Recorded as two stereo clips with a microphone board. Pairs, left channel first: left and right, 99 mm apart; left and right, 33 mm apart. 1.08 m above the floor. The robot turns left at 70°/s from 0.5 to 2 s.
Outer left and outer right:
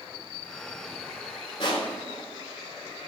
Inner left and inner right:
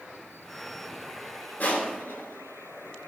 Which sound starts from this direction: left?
Crushing, at 1.6 s.